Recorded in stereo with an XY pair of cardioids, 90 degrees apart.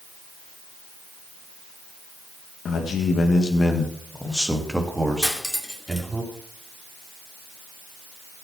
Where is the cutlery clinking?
10° left, 2.5 m.